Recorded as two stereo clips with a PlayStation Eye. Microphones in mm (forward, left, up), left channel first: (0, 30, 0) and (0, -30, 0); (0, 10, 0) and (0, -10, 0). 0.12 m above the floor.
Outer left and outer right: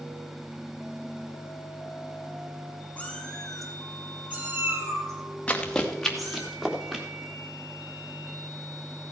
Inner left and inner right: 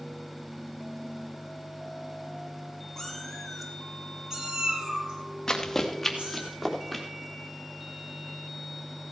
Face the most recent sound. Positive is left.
turn(degrees=-10)  # may be behind; listen again after turning